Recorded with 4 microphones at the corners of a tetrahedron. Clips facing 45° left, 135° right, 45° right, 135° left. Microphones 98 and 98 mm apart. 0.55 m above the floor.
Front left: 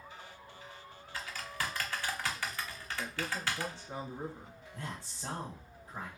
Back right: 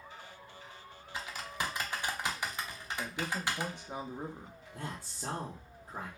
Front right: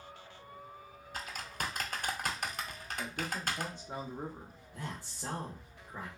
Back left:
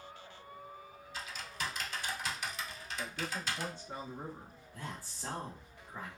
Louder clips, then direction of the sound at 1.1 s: Back right 1 dB, front right 2 dB; 65° right.